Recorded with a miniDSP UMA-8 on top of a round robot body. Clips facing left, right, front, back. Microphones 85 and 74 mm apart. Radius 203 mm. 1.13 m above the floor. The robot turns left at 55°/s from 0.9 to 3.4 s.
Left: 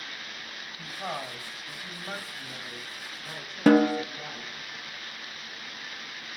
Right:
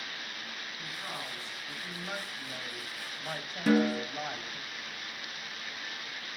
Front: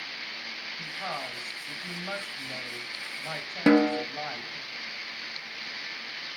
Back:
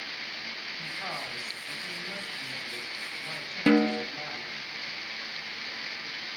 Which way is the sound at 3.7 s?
65° left.